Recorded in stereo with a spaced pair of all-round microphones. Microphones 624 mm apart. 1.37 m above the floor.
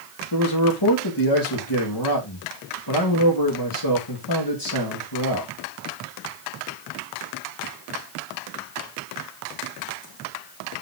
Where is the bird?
No bird in this recording.